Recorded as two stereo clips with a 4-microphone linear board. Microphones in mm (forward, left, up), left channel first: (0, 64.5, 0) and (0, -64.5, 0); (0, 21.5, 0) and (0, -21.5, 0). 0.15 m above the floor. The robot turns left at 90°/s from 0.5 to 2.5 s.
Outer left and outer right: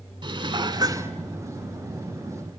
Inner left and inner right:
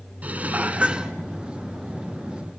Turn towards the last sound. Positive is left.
turn(degrees=85)